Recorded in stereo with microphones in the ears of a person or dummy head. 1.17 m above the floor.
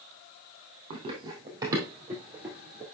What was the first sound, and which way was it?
Running footsteps, 20° right (ahead or behind).